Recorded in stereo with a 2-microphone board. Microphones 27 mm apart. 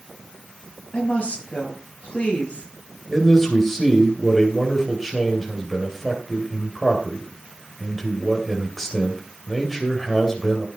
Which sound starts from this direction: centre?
A man speaking, at 3.1 s.